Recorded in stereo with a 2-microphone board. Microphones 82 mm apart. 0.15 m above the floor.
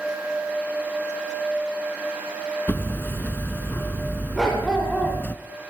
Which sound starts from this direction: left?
Hammering, at 2.7 s.